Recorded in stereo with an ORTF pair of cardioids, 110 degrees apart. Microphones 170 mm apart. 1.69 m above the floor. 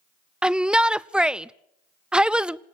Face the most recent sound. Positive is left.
turn(degrees=-5)